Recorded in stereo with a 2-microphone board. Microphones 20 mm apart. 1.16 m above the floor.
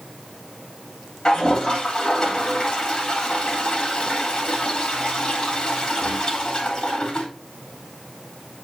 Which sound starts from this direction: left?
A toilet flushing, at 1.2 s.